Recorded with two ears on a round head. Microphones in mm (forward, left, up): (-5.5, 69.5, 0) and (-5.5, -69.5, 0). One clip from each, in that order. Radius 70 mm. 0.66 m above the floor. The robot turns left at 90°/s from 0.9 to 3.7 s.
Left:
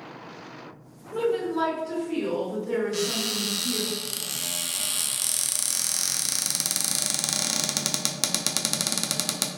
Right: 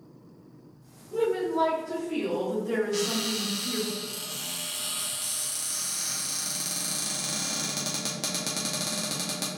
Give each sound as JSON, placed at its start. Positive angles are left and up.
{"t": 1.1, "sound": "a woman speaking", "azimuth_deg": 105, "distance_m": 1.9}
{"t": 2.9, "sound": "a cupboard door", "side_deg": 0, "distance_m": 0.6}